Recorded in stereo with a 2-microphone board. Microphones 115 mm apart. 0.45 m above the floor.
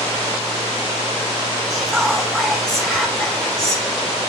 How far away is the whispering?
About 4 m.